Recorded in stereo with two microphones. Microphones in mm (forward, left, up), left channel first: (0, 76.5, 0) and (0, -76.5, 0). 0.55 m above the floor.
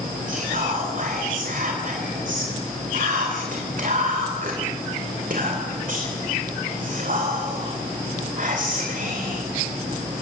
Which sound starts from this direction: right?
Whispering, at 0.3 s.